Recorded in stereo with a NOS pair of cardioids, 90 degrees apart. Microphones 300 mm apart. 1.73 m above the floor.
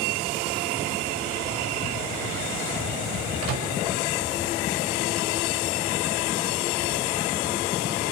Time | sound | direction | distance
3.4 | a microwave | 55° right | 6.5 m